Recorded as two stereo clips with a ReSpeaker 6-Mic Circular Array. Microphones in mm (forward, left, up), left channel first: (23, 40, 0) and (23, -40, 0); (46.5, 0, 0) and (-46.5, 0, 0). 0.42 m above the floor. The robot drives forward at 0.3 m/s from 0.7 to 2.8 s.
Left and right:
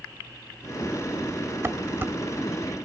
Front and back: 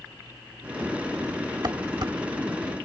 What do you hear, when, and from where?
1.6 s dishes clattering: 145° right, 1.0 m; by 2.1 s 150° right, 1.1 m